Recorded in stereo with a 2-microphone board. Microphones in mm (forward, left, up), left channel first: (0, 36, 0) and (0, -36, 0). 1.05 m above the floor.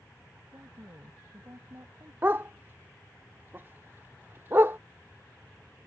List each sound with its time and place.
0.5 s a woman speaking: 50° right (ahead or behind)
2.2 s a dog barking: 30° right (ahead or behind)